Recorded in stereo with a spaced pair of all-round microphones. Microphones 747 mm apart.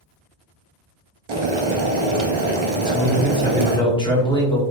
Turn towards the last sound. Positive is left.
turn(degrees=5)  # may be behind; listen again after turning